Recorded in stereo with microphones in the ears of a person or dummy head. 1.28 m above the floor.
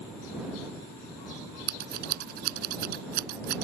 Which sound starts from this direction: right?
Scissors, at 1.7 s.